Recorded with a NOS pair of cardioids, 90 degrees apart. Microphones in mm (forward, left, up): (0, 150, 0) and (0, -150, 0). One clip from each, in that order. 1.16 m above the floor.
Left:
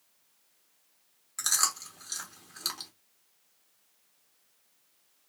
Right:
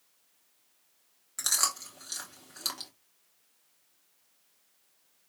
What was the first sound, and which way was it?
Chewing, straight ahead.